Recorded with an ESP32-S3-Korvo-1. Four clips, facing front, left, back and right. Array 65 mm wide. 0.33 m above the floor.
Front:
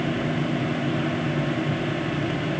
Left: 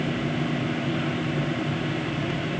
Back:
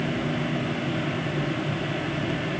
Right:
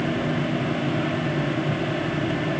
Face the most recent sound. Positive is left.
No sound to turn to.